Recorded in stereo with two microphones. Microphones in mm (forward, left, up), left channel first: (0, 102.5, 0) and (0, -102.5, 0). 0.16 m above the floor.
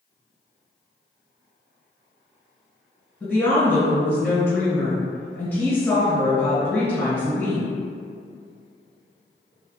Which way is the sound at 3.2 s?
5° left (ahead or behind).